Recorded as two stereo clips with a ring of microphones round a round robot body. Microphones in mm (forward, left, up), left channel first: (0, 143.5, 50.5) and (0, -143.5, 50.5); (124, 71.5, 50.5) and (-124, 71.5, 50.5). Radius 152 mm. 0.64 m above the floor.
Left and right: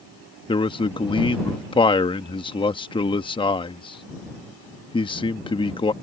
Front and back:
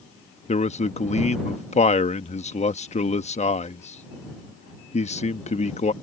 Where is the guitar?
No guitar in this recording.